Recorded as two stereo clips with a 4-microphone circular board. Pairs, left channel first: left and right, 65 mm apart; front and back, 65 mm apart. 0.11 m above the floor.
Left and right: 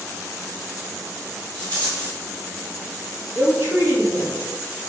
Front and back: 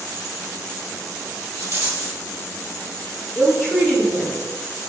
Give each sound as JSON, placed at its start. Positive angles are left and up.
{"t": 1.6, "sound": "a rattle", "azimuth_deg": 155, "distance_m": 1.5}
{"t": 3.4, "sound": "a woman speaking", "azimuth_deg": -95, "distance_m": 1.8}